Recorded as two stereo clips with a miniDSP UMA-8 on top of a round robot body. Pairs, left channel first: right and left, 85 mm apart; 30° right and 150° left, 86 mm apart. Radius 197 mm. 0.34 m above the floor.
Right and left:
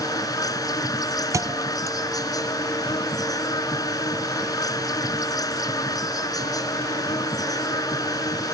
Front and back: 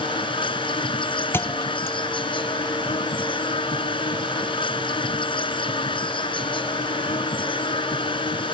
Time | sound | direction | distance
0.0 | an insect | 45° right | ?
1.3 | a thud | 35° left | ?